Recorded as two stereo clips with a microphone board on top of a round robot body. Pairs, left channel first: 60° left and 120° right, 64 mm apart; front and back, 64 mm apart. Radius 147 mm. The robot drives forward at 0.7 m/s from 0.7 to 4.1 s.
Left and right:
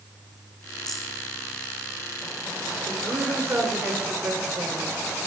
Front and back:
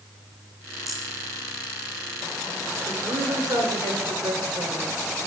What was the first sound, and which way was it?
A rattle, 45° left.